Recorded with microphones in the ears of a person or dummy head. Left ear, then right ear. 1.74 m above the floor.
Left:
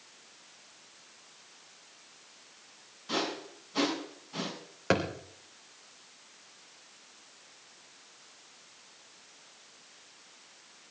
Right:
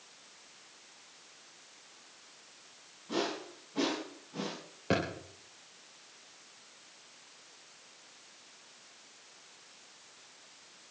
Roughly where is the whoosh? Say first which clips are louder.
Left 2 dB; left.